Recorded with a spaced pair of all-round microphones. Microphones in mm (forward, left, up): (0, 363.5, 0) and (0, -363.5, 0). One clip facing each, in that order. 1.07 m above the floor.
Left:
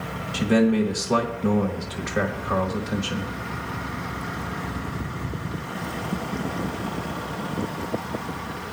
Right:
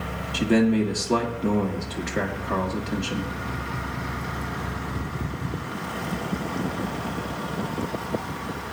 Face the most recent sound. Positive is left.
turn(degrees=25)  # may be behind; listen again after turning